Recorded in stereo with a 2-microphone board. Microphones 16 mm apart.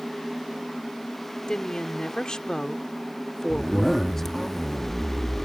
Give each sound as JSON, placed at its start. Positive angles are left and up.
{"t": 1.5, "sound": "a woman speaking", "side_deg": 65}
{"t": 3.5, "sound": "a zipper", "side_deg": 20}